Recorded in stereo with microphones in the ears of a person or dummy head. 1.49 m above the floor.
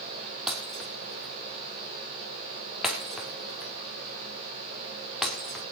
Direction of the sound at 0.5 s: Centre (ahead or behind).